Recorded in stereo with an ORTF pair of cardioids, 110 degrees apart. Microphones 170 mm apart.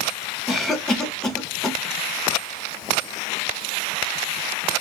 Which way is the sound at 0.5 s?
Straight ahead.